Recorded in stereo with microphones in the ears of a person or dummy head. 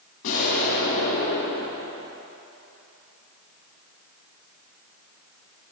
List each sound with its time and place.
0.2 s an explosion: 65° left (ahead or behind), 2.5 m